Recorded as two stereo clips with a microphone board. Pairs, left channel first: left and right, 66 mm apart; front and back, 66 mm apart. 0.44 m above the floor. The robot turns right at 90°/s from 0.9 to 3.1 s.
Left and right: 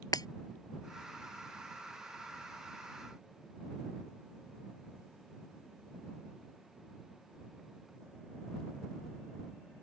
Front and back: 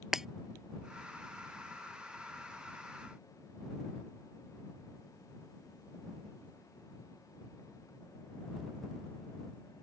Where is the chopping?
No chopping in this recording.